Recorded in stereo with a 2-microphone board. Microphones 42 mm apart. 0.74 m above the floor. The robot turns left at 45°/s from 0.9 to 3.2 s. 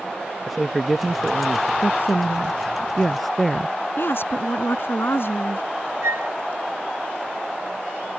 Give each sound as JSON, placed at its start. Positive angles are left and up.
{"t": 0.5, "sound": "a man speaking", "side_deg": 0}
{"t": 1.8, "sound": "a woman speaking", "azimuth_deg": 65}
{"t": 4.0, "sound": "a woman speaking", "side_deg": 60}
{"t": 6.0, "sound": "a flute", "side_deg": -80}